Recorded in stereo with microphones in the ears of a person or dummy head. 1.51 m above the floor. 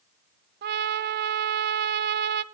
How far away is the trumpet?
About 0.7 m.